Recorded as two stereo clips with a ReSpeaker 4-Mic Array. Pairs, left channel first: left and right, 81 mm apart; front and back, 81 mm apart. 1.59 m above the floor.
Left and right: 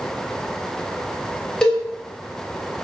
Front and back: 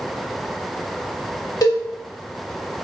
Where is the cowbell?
10° left, 1.2 m.